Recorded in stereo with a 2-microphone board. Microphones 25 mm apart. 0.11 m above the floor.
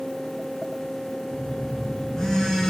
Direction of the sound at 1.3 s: 25° left (ahead or behind).